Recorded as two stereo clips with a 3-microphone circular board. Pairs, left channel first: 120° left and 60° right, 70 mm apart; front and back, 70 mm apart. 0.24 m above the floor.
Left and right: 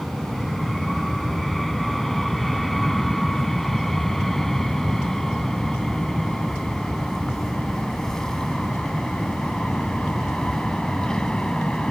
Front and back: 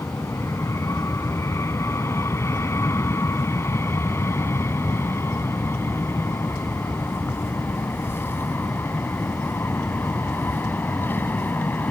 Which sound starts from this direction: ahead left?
An aircraft, at 0.0 s.